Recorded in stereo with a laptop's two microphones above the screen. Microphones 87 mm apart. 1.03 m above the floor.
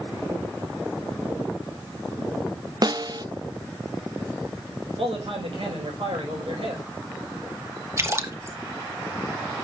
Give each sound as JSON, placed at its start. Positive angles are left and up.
{"t": 2.8, "sound": "a snare drum", "side_deg": -45, "distance_m": 0.5}
{"t": 5.0, "sound": "a man speaking", "side_deg": -80, "distance_m": 5.5}
{"t": 8.0, "sound": "a splash", "side_deg": -30, "distance_m": 1.3}